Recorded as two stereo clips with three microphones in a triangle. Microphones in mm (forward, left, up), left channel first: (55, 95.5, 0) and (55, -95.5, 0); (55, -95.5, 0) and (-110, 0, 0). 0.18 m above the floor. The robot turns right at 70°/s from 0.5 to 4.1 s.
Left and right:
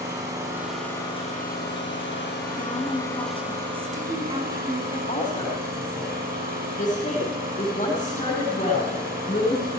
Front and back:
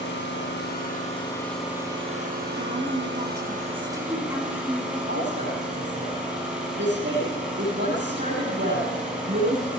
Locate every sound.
0.0 s an engine running: 15° right, 4 m; by 9.8 s 125° right, 4 m
2.6 s a woman speaking: 110° left, 1.6 m; by 5.0 s 140° right, 1.6 m
5.1 s a woman speaking: 140° left, 5 m